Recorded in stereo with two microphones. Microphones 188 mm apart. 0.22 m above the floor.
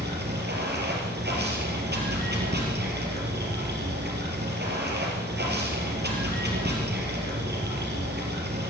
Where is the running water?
65° right (ahead or behind), 4 m.